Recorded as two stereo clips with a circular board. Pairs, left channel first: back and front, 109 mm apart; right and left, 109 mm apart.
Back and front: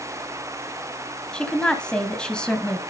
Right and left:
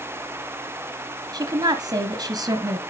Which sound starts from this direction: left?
A woman speaking, at 1.3 s.